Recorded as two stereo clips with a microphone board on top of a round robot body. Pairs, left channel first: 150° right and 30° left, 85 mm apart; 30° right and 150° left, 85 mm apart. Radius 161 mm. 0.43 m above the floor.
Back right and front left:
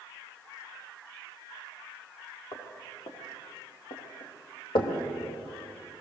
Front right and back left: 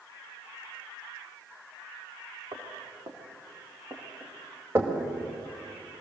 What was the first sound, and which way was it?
Footsteps, 170° right.